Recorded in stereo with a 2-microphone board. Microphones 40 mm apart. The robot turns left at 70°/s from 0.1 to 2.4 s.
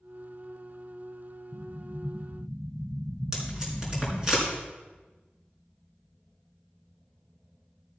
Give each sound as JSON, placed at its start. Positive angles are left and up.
{"t": 1.5, "sound": "an explosion", "side_deg": -20, "distance_m": 1.4}
{"t": 3.3, "sound": "tape being pulled", "side_deg": -15, "distance_m": 5.0}